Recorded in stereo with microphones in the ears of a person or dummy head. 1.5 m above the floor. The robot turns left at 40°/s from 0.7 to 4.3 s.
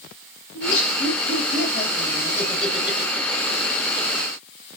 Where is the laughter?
80° left, 1.8 m; by 4.2 s 60° right (ahead or behind), 1.8 m.